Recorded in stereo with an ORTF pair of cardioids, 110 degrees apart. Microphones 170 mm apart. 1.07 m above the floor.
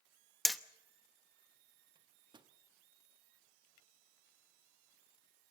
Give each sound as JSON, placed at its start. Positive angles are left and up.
{"t": 0.5, "sound": "hammering", "azimuth_deg": 0, "distance_m": 0.8}
{"t": 1.9, "sound": "a microwave", "azimuth_deg": -30, "distance_m": 1.2}